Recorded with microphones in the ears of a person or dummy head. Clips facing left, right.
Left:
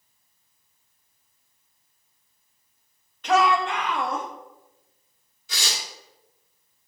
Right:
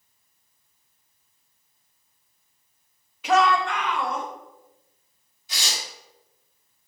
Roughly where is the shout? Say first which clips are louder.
Even; centre.